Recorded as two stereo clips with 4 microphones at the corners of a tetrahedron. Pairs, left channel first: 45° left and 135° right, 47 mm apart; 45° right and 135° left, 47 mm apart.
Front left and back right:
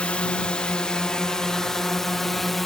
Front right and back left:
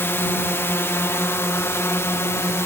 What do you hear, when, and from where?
0.0 s a drone: 15° right; by 2.7 s 40° right